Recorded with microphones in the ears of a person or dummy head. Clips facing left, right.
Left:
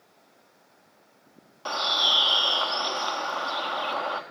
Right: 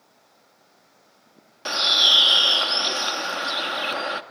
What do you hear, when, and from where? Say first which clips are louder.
1.6 s a bird: right 1 dB; 25° right (ahead or behind), 1.3 m